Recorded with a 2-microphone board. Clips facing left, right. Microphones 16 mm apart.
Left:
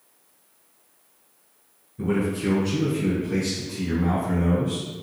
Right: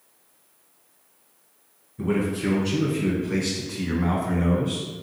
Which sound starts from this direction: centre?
A man speaking, at 2.0 s.